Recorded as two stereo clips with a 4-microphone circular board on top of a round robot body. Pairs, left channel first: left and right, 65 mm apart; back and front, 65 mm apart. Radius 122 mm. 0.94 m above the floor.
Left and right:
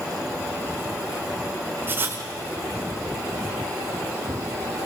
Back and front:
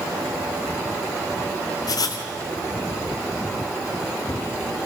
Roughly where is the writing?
Behind right.